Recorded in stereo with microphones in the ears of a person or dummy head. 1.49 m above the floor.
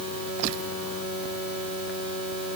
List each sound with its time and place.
Only background noise.